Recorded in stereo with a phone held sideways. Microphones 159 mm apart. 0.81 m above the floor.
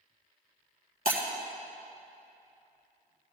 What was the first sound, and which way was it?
Breaking glass, 65° right (ahead or behind).